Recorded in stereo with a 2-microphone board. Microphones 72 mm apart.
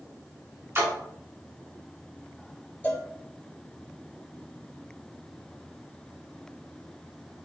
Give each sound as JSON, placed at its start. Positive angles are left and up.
{"t": 0.8, "sound": "a splash", "side_deg": -35, "distance_m": 1.4}
{"t": 2.8, "sound": "a cowbell", "side_deg": 25, "distance_m": 0.5}